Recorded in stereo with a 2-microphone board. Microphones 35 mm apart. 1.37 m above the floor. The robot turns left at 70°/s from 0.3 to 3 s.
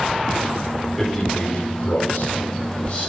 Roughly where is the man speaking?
Behind.